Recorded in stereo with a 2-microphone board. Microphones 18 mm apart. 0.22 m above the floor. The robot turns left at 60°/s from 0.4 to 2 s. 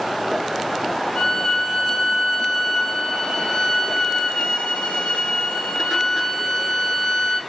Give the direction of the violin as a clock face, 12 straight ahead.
7 o'clock.